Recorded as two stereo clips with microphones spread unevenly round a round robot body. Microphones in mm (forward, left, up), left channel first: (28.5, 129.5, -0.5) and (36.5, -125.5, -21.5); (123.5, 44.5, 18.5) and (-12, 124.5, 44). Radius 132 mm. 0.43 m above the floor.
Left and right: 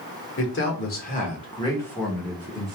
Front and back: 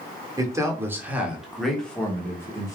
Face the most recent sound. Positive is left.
turn(degrees=-40)